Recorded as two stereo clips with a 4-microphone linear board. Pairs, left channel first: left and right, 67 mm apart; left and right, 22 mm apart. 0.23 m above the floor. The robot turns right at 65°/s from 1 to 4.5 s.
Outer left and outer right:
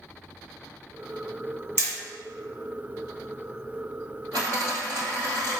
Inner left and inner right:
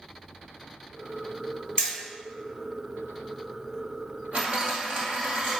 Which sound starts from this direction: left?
Hammering, at 1.8 s.